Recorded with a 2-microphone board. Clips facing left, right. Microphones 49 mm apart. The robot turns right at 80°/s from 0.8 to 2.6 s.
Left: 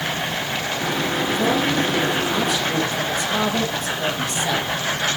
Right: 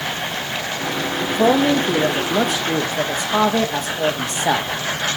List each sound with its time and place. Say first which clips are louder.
1.2 s a man speaking: right 6 dB; 150° right, 1.6 m; by 4.7 s 40° right, 1.6 m